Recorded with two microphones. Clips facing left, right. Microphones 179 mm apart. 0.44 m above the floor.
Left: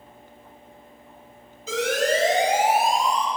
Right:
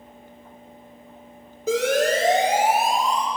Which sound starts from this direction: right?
A siren, at 1.7 s.